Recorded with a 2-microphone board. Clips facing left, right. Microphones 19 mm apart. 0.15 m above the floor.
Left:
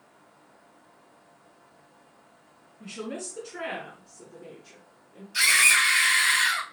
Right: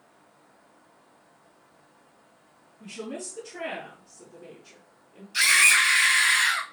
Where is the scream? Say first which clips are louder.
Right 1 dB; 10° right (ahead or behind), 3 m.